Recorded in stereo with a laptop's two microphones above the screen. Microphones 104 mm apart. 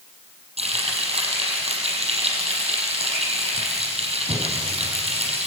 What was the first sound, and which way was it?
Frying, 85° right.